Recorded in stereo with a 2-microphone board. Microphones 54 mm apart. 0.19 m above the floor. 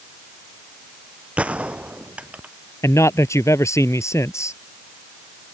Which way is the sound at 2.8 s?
65° left (ahead or behind).